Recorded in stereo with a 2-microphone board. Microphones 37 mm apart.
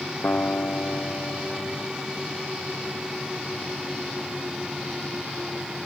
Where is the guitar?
70° left (ahead or behind).